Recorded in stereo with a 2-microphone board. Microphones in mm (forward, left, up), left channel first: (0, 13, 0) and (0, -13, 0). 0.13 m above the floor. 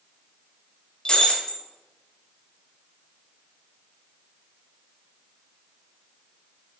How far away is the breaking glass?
About 4.5 m.